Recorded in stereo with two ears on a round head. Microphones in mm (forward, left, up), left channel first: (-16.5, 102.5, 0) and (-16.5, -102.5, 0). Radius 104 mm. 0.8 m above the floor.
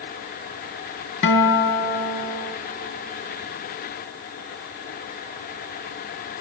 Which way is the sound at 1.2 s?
60° left (ahead or behind).